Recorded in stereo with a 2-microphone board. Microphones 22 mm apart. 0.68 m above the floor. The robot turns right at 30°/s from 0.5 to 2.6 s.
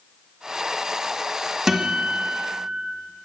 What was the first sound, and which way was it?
A guitar, 10° right (ahead or behind).